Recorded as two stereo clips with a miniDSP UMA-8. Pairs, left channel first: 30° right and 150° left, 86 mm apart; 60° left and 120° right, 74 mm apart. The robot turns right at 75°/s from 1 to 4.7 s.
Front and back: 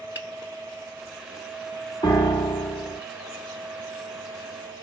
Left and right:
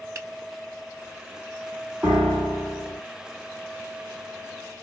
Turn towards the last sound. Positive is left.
turn(degrees=155)